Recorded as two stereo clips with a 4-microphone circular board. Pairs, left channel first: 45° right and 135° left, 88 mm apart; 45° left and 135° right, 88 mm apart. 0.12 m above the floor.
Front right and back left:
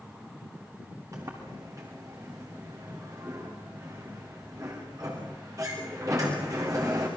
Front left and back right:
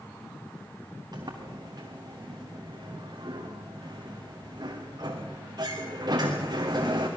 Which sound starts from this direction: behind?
A sliding door, at 1.1 s.